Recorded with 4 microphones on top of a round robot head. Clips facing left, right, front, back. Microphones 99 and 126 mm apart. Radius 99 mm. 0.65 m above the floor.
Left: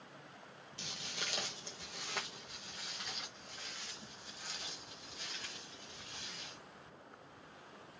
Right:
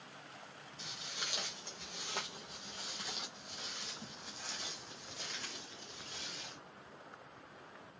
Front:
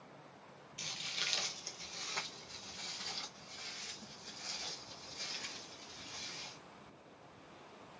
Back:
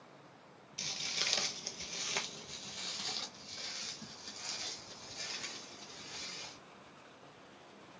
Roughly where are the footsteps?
Behind left.